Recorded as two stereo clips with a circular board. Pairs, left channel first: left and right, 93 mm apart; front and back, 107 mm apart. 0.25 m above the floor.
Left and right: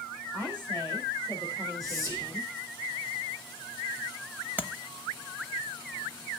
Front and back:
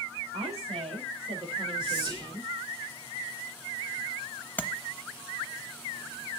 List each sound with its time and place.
0.3 s a woman speaking: 160° right, 6.5 m; by 2.5 s 145° right, 6 m
1.8 s whispering: 140° right, 3.5 m
4.6 s tapping: 50° right, 0.8 m